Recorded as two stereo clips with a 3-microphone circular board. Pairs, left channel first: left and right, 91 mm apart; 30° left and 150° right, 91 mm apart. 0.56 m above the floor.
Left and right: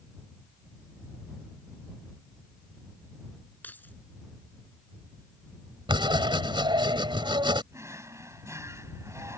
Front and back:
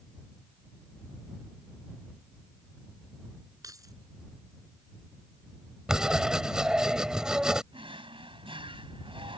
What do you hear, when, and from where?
3.6 s keys jangling: 160° left
5.9 s writing: 70° right
7.7 s a drawer: 145° right